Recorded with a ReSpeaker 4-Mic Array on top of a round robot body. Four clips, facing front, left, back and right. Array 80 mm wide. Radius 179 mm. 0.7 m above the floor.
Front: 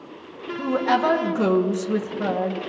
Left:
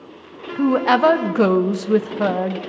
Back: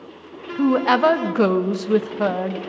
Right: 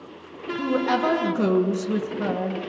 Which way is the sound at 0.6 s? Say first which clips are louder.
Left 7 dB, back 4 dB; 130° left.